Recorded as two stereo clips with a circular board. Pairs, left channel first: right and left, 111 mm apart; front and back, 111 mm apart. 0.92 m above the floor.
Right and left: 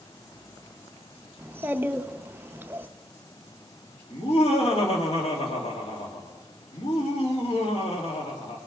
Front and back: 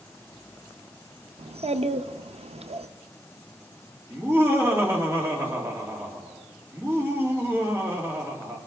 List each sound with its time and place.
1.4 s a child speaking: 160° left, 0.6 m
4.1 s laughter: 115° right, 2.5 m